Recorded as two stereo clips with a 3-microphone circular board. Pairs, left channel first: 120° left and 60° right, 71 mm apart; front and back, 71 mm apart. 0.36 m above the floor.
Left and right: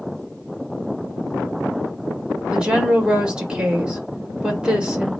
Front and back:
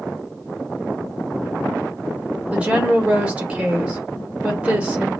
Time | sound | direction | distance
2.5 | a woman speaking | 125° right | 1.2 m